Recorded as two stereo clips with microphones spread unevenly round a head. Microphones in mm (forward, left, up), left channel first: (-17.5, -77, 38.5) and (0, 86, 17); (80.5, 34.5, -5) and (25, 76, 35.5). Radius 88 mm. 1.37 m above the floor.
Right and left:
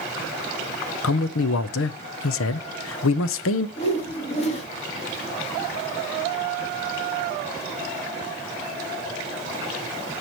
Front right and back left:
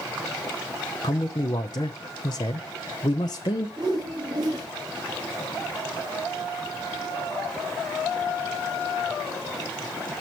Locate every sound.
1.0 s a man speaking: 95° right, 0.7 m
3.8 s a whoosh: 150° right, 3.5 m